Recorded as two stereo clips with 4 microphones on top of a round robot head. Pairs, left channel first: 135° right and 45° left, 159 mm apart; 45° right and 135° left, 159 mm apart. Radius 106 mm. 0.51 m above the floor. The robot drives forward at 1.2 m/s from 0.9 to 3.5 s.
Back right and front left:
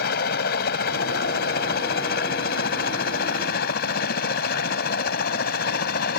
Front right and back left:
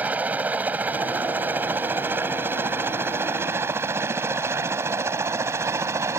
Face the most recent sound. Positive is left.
turn(degrees=-150)